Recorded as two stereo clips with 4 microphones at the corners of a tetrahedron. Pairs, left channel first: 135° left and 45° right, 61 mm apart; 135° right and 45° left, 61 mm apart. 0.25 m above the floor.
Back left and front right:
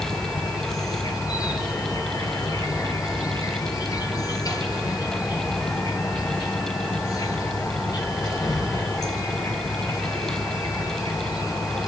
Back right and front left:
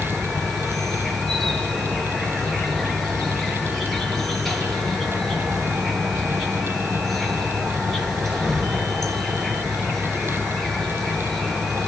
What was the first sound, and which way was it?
An insect, 140° left.